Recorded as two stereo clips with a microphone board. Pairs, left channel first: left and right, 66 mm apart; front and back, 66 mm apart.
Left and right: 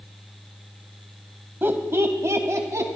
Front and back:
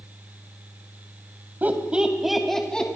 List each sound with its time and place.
1.6 s laughter: 130° right, 1.6 m; by 2.9 s 70° right, 1.9 m